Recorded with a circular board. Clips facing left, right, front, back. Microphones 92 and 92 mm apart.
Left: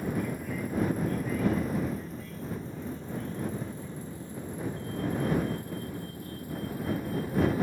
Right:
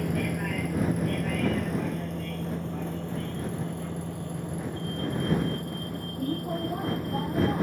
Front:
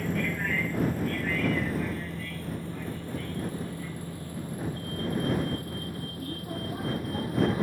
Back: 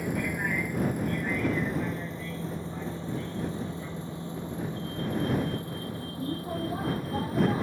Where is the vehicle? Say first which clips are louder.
Right 3 dB, even; 105° right; by 7.6 s 115° right.